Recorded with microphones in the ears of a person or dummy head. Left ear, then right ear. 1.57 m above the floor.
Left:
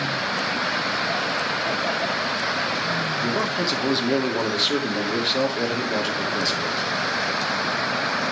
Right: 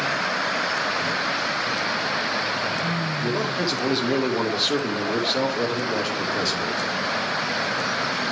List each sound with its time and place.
3.2 s a man speaking: 5° left (ahead or behind), 2.5 m